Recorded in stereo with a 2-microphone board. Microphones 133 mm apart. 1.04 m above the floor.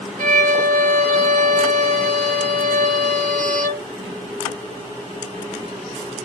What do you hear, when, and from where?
0.2 s a violin: 80° right, 0.5 m